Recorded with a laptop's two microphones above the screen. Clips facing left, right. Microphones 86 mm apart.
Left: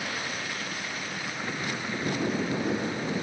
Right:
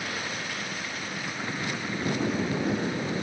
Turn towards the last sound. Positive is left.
No sound to turn to.